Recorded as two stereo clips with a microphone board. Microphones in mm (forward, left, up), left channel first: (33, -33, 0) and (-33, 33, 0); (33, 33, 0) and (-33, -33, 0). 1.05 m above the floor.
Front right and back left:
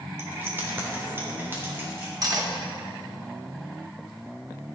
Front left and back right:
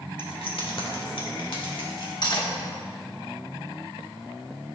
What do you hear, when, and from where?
0.2 s keys jangling: 70° left, 1.4 m
2.2 s cutlery clinking: 90° left, 1.3 m